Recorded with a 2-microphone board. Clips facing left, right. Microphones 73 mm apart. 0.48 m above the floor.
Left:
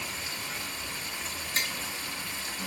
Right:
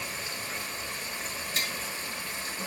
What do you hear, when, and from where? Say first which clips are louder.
0.0 s running water: right 1 dB; 40° right (ahead or behind), 1.3 m
1.6 s tapping: left 2 dB; 35° left (ahead or behind), 0.6 m